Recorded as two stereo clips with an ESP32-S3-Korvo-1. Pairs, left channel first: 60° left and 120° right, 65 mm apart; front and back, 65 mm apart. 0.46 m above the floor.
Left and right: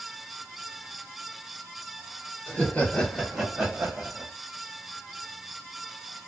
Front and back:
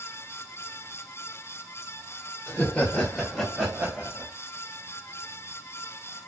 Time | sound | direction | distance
2.5 | laughter | 30° left | 1.5 m